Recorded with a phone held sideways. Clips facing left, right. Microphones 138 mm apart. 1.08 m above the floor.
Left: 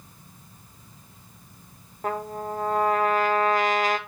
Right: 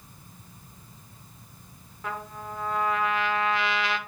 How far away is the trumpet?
About 0.8 m.